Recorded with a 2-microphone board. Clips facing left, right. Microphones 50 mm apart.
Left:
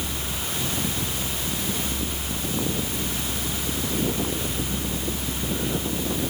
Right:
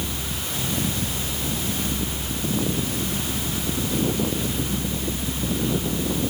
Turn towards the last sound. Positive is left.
No sound to turn to.